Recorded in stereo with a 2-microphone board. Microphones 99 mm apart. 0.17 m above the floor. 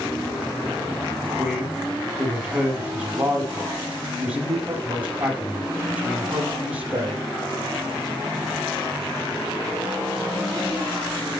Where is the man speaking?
15° right (ahead or behind), 5 m.